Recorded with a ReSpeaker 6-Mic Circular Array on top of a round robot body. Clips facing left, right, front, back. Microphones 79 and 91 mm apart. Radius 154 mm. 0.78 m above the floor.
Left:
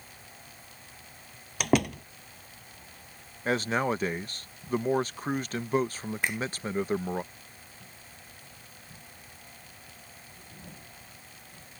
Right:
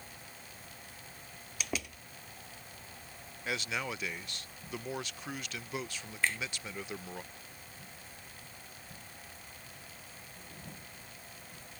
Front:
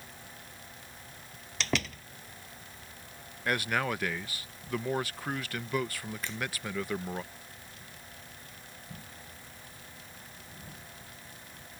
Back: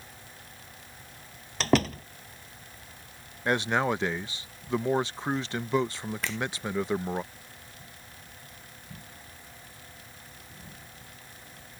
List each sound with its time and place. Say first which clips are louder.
1.6 s a door slam: left 15 dB, back 9 dB; 130° left
3.5 s a man speaking: left 10 dB, back 5 dB; 120° left
6.2 s a finger snap: left 1 dB, back 6 dB; 165° left